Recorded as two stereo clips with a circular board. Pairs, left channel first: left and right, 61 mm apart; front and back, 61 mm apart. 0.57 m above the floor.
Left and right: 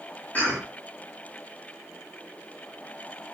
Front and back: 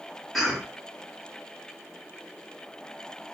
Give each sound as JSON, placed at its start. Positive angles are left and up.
{"t": 0.3, "sound": "a cough", "azimuth_deg": 100, "distance_m": 1.0}